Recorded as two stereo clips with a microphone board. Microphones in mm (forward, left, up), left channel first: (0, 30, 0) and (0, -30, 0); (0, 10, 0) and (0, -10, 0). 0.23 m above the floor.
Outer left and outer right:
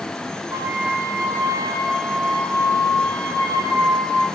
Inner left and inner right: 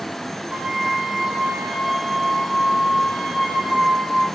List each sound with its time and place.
0.5 s a flute: 70° right (ahead or behind), 6.5 m